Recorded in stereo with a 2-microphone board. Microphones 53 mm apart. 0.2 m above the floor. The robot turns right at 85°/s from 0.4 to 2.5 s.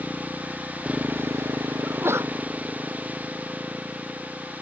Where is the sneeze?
150° right; by 2.4 s 105° right.